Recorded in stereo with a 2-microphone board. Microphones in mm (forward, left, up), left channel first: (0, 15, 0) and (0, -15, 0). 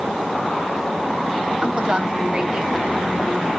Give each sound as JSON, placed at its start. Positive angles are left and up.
{"t": 1.6, "sound": "a woman speaking", "side_deg": -35, "distance_m": 1.7}